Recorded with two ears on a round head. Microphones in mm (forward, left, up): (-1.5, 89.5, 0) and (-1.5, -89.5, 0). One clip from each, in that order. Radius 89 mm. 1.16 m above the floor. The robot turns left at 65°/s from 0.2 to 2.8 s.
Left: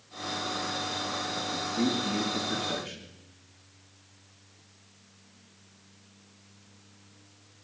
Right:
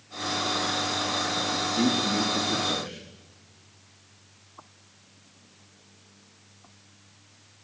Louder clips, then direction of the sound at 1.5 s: Right 3 dB; 45° right (ahead or behind).